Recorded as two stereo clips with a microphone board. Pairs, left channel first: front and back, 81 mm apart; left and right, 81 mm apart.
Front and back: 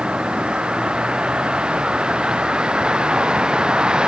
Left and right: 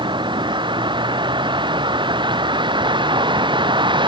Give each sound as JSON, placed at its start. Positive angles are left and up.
{"t": 0.0, "sound": "a vehicle", "azimuth_deg": -100}